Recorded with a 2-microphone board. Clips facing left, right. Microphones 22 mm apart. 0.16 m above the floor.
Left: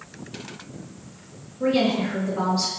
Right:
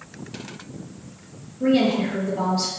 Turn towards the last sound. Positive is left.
turn(degrees=35)  # may be behind; listen again after turning